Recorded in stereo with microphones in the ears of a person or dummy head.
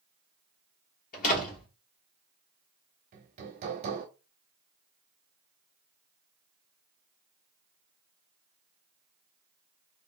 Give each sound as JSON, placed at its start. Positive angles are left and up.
{"t": 1.1, "sound": "a door slam", "side_deg": 45, "distance_m": 1.5}
{"t": 3.1, "sound": "hammering", "side_deg": -25, "distance_m": 0.8}